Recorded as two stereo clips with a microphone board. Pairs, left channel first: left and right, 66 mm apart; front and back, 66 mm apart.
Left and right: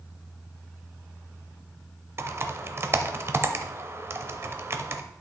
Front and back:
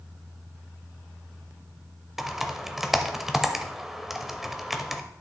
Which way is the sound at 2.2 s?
95° right.